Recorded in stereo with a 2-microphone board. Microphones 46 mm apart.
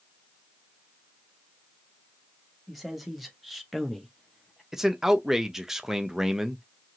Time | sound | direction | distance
2.7 | a man speaking | centre (ahead or behind) | 1.1 m
4.7 | a man speaking | 10° right (ahead or behind) | 0.6 m